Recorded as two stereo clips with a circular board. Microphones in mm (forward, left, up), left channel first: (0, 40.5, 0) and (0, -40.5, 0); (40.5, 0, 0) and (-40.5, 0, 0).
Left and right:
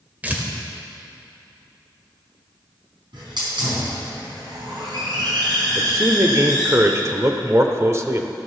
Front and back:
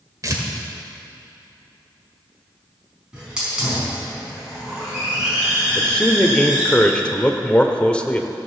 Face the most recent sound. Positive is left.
turn(degrees=-65)